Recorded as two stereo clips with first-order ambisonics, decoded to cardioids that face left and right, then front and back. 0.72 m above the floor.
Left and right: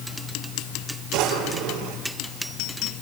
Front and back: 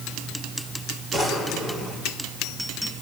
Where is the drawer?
65° right, 7 m.